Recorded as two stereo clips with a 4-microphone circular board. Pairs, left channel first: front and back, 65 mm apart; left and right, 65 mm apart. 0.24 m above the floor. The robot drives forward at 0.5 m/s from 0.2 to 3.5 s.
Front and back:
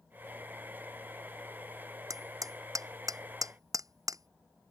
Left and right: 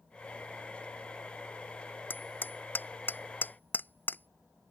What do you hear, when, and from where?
2.1 s hammering: 150° left